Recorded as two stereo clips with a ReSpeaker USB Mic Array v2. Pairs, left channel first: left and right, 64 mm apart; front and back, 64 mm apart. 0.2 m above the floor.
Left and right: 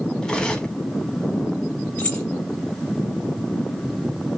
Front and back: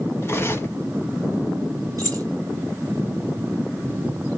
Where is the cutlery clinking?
20° left, 0.8 m.